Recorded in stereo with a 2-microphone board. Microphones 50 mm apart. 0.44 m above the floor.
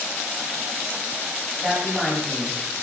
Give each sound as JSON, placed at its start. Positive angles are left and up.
{"t": 1.6, "sound": "a woman speaking", "side_deg": -5, "distance_m": 2.5}